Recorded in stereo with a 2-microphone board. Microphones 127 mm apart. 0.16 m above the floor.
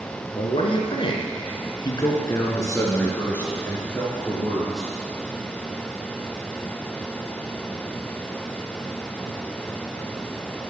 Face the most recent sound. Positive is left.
turn(degrees=5)  # may be behind; listen again after turning